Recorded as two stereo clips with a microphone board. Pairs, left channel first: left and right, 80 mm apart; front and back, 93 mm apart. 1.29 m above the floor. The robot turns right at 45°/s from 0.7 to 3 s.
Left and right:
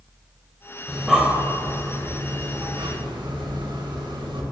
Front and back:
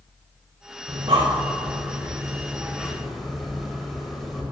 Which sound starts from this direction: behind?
Breathing, at 0.9 s.